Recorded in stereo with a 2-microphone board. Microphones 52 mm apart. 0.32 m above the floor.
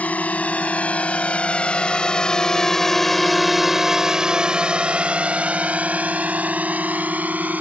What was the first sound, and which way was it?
A drone, 30° left (ahead or behind).